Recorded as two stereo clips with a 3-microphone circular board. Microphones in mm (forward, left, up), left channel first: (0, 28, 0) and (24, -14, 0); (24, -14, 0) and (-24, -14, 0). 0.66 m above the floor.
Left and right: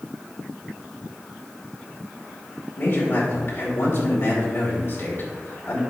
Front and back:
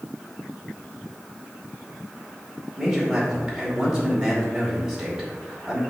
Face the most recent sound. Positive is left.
turn(degrees=100)